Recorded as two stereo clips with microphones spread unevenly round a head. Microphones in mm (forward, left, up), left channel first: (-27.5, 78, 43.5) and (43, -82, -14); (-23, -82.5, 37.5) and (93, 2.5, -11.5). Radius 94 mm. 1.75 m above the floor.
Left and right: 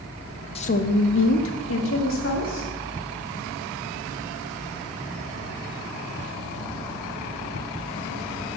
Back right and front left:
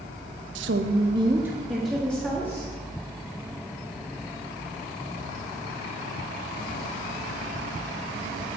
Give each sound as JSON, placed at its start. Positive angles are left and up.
{"t": 0.6, "sound": "a woman speaking", "azimuth_deg": 60, "distance_m": 0.6}